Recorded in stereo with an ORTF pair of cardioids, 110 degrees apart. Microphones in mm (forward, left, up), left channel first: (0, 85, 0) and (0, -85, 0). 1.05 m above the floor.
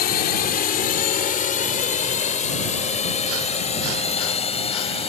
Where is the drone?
60° left; by 5.1 s 35° left.